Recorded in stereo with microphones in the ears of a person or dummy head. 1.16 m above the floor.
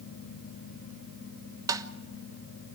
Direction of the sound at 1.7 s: 20° right (ahead or behind).